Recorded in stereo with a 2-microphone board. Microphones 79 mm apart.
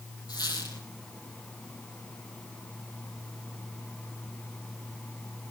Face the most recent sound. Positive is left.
turn(degrees=55)  # may be behind; listen again after turning